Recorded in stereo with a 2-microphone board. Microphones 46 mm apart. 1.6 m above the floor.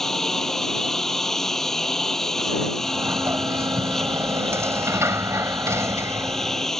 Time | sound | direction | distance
0.0 | a lawn mower | 5° left (ahead or behind) | ?
2.8 | a sliding door | 85° right | ?